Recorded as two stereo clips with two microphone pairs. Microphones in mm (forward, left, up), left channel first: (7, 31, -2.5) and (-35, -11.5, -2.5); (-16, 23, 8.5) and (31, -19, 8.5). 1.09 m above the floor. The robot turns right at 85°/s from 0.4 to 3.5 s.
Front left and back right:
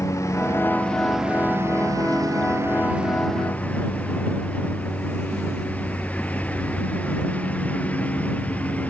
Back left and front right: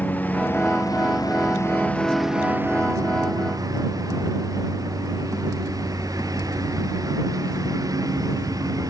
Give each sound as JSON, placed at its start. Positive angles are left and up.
{"t": 0.0, "sound": "a lawn mower", "azimuth_deg": 75}